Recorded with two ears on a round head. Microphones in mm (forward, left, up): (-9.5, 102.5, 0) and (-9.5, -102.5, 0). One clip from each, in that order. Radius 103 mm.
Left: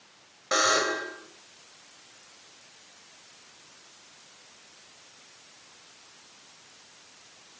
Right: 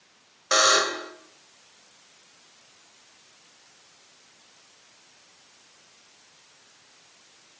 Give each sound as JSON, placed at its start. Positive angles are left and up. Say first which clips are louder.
{"t": 0.5, "sound": "a buzzer", "louder": "right 4 dB", "side_deg": -45, "distance_m": 2.5}